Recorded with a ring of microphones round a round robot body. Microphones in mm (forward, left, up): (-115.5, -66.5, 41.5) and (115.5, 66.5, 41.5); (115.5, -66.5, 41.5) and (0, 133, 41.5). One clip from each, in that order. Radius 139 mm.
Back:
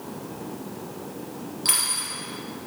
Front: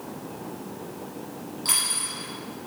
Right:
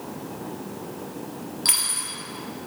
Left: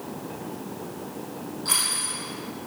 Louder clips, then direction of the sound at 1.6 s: Back 1 dB, right 1 dB; 70° right.